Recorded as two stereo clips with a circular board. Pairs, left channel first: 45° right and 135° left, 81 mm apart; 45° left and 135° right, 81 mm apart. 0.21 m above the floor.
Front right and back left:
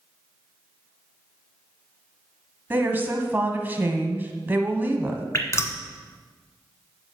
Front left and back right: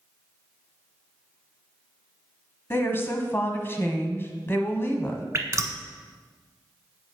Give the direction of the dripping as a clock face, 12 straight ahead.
3 o'clock.